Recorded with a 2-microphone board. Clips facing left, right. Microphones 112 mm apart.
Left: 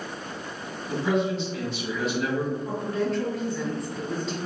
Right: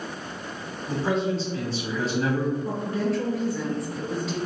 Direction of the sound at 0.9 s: 35° right (ahead or behind).